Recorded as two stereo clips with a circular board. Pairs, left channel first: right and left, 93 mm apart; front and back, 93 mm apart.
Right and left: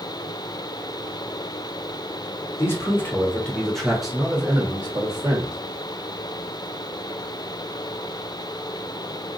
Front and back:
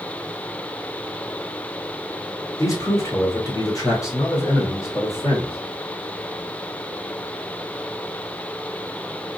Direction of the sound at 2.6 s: 40° right.